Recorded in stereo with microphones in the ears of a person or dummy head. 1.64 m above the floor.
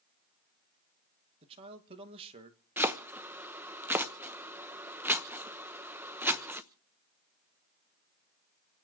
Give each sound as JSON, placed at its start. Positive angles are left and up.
{"t": 1.4, "sound": "a man speaking", "side_deg": -35, "distance_m": 2.0}
{"t": 2.8, "sound": "chopping", "side_deg": -10, "distance_m": 0.9}